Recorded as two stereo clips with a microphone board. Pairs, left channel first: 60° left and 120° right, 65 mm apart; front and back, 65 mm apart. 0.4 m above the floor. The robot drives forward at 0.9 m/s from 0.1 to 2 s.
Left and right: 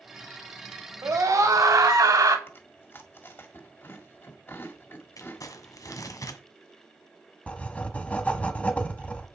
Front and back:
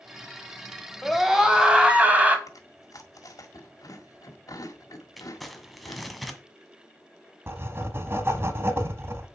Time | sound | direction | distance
1.0 | a scream | 90° right | 2.5 m
2.5 | chewing | 10° left | 1.8 m
5.2 | crumpling | 90° left | 1.4 m
7.5 | writing | 130° left | 1.4 m